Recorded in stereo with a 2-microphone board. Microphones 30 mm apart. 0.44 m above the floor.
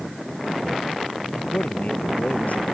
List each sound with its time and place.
1.4 s a man speaking: 55° left (ahead or behind); by 2.6 s 60° left (ahead or behind)